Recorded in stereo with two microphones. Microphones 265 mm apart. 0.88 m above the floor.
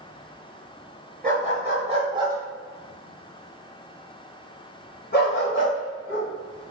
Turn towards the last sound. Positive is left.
turn(degrees=50)  # may be behind; listen again after turning